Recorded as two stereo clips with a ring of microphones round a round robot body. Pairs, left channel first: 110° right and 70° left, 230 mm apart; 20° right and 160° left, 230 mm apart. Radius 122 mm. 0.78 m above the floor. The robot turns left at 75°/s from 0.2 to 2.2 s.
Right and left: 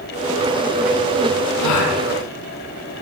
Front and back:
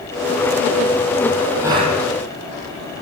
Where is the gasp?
120° right, 4.5 m; by 1.9 s 145° right, 4.5 m.